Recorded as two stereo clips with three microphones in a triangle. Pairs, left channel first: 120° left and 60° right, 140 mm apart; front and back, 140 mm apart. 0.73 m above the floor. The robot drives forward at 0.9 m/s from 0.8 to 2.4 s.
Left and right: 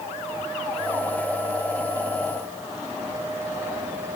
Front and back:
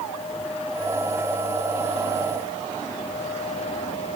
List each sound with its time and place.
Only background noise.